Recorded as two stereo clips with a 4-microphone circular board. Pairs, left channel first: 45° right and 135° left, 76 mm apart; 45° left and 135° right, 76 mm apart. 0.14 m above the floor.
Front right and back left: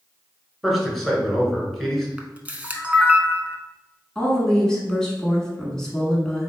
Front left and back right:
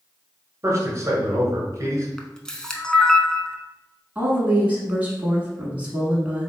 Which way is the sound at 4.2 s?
110° right.